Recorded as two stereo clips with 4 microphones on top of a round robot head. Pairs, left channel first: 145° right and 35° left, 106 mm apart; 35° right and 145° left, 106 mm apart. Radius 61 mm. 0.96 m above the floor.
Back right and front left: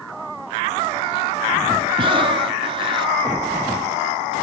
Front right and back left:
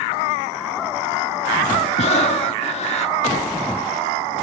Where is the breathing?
5° right, 1.1 m.